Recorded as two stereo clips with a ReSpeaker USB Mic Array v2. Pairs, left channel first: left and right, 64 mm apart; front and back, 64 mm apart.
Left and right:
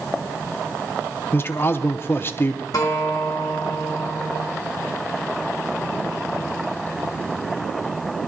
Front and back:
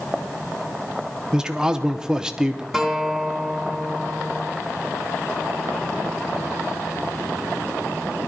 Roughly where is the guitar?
Left.